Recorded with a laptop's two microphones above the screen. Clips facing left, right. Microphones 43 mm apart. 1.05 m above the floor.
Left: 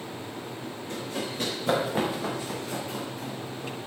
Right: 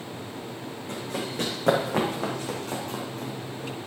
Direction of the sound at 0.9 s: 75° right (ahead or behind).